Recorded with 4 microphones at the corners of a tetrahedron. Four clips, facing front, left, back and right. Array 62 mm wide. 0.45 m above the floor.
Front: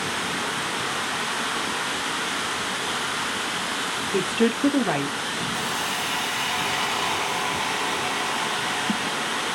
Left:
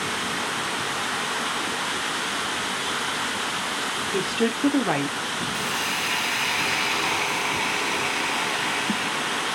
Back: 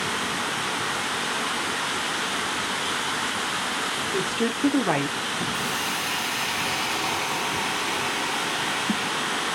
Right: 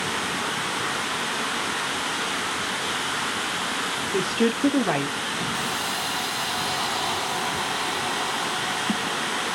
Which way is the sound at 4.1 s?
10° right.